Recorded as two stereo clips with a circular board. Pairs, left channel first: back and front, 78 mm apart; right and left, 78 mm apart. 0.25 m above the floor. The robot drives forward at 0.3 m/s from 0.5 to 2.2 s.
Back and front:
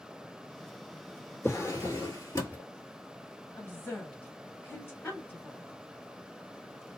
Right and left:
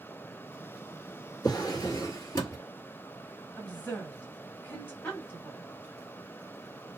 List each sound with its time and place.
1.4 s a drawer: 130° right, 0.9 m; by 2.6 s 135° right, 1.1 m
3.6 s a woman speaking: 145° right, 1.3 m